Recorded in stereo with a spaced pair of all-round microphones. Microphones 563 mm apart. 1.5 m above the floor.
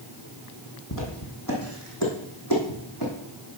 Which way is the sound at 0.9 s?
35° left (ahead or behind).